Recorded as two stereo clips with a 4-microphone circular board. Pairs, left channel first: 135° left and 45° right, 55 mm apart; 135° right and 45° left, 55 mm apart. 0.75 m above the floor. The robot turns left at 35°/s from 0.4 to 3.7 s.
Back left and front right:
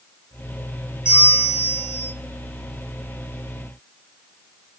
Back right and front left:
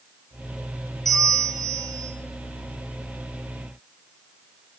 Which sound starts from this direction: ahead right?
A bell, at 1.1 s.